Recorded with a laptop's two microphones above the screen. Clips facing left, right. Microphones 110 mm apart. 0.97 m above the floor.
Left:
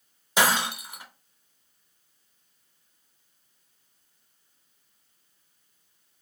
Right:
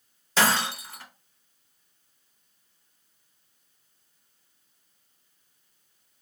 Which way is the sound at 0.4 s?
15° left (ahead or behind).